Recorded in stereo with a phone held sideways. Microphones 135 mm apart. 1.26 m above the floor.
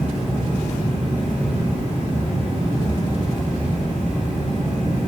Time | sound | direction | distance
0.0 | a fan | 80° left | 1.4 m